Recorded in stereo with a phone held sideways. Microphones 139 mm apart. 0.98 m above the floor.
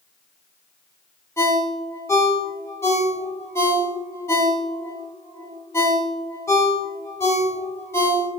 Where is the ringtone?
15° left (ahead or behind), 0.9 m.